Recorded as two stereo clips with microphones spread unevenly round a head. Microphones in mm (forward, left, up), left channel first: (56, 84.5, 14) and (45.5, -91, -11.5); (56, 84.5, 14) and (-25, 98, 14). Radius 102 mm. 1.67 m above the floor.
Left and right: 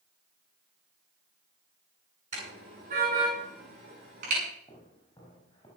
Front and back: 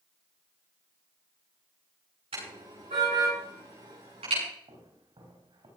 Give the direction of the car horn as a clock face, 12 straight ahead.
5 o'clock.